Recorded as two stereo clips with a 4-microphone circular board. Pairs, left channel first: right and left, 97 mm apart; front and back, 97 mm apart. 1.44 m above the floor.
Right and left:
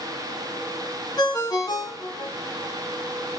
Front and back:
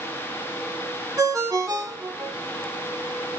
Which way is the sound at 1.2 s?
130° right.